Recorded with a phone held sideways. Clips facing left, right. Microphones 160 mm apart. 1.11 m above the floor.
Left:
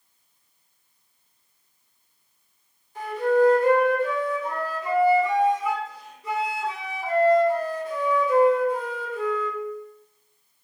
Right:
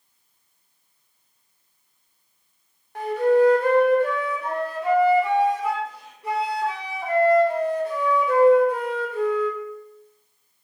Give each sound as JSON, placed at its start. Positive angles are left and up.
{"t": 3.0, "sound": "a flute", "side_deg": -65, "distance_m": 0.5}